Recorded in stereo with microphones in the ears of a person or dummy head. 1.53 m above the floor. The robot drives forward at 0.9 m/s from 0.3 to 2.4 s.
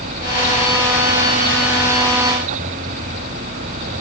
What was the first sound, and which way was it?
Only background noise.